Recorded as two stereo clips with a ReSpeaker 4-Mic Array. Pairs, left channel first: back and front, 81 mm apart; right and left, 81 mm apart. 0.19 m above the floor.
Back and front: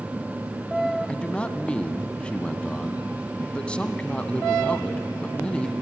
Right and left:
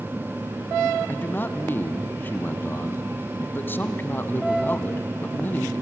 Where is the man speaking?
120° right, 1.1 m.